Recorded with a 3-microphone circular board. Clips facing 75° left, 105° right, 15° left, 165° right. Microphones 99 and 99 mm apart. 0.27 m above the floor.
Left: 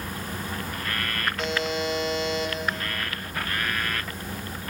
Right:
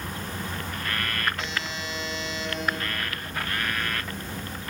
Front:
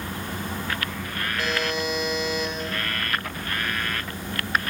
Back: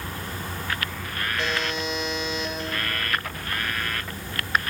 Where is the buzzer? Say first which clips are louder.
Left 6 dB, front 2 dB; 125° left, 2.5 m.